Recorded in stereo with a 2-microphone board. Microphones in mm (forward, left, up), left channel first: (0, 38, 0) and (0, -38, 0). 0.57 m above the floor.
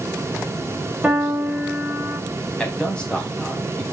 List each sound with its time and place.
1.0 s a piano: 10° right (ahead or behind), 4 m
2.6 s a man speaking: 10° left (ahead or behind), 3.5 m